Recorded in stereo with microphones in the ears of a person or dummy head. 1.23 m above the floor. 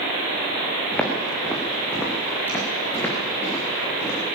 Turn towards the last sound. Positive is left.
turn(degrees=15)  # may be behind; listen again after turning